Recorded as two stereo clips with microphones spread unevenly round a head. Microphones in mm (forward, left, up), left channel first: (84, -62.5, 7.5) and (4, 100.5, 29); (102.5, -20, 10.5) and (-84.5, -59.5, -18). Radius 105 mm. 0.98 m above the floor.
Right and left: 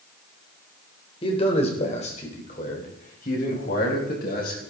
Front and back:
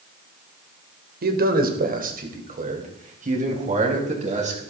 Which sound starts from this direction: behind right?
A man speaking, at 1.2 s.